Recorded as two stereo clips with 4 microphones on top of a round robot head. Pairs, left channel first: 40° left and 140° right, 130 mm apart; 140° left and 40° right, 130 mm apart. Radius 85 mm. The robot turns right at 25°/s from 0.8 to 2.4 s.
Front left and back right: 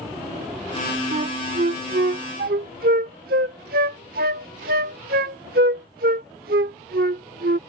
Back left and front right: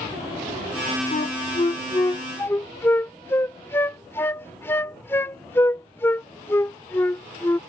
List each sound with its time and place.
1.1 s a flute: straight behind; by 7.6 s 150° right